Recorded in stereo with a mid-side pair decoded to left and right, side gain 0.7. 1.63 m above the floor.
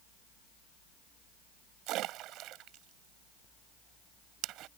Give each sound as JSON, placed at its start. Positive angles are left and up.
{"t": 1.9, "sound": "a splash", "azimuth_deg": -55}